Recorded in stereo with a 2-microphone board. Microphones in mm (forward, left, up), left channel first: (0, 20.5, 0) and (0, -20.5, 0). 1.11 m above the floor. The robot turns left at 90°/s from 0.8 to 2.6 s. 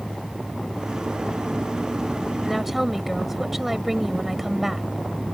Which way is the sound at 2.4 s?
10° left (ahead or behind).